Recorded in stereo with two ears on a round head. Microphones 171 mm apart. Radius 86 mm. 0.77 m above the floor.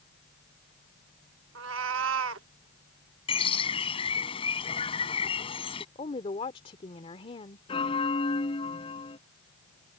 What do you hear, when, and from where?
1.6 s a cat meowing: 75° right (ahead or behind)
3.3 s a bird: 30° left (ahead or behind)
6.0 s a woman speaking: 30° left (ahead or behind)
7.7 s a bell: 25° left (ahead or behind)